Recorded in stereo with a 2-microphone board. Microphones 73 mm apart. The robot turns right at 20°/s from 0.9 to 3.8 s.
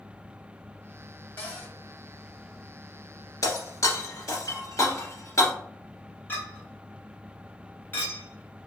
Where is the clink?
30° left (ahead or behind), 1.2 m.